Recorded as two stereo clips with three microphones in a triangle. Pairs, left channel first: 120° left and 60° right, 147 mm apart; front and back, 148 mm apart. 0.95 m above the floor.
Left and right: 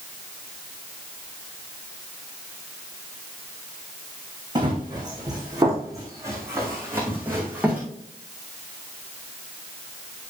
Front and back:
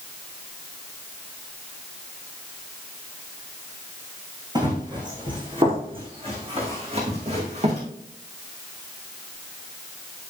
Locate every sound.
4.5 s running footsteps: 120° right, 4.5 m; by 7.8 s 140° right, 4.5 m